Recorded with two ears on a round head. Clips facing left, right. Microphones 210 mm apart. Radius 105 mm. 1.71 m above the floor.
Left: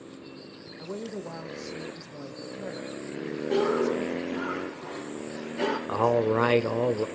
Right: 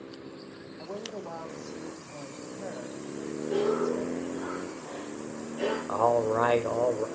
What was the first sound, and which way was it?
A woman speaking, 35° left (ahead or behind).